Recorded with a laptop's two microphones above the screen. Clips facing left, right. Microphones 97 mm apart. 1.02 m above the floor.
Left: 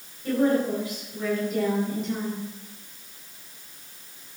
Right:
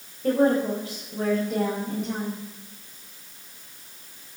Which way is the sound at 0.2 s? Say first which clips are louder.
Right 2 dB; 65° right (ahead or behind).